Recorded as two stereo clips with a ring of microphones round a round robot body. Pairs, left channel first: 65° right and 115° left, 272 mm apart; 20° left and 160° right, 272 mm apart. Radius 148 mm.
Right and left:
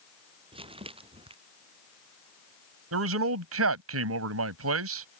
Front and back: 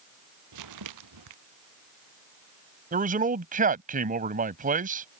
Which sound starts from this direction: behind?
Crumpling, at 0.5 s.